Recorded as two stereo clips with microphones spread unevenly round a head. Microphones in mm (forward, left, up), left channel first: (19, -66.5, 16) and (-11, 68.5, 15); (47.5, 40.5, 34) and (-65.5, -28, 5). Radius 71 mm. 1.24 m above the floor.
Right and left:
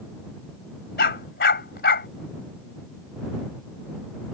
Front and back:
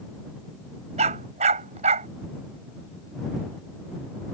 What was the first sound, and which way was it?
A dog barking, 100° right.